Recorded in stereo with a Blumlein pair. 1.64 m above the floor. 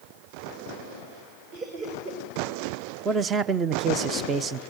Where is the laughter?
40° right, 6.5 m.